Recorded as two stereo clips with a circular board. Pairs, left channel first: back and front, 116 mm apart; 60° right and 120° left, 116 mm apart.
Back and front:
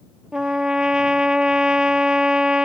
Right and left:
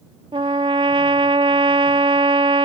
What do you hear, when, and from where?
0.3 s a trumpet: 85° left